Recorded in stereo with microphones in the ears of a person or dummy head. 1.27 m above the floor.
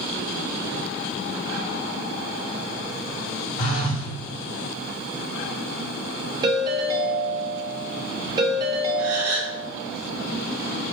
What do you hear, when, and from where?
3.6 s a phone buzzing: 60° left (ahead or behind), 1.9 m
6.4 s a ringtone: 20° right (ahead or behind), 1.0 m
9.0 s a gasp: 75° right (ahead or behind), 2.5 m